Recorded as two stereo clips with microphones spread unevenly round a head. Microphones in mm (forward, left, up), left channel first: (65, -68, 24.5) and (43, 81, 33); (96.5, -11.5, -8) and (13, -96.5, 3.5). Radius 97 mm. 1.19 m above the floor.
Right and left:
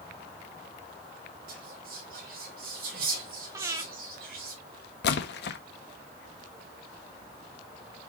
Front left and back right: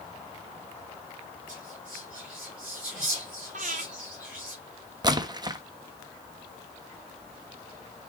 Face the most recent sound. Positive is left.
turn(degrees=-80)